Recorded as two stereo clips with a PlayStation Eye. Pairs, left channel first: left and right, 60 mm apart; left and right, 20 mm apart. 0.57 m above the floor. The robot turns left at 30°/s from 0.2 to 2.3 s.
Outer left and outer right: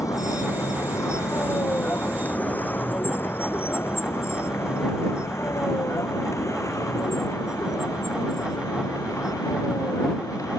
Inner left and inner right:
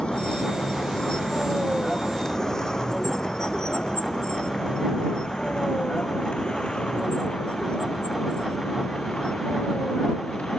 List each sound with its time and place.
0.0 s a vehicle: 65° left (ahead or behind)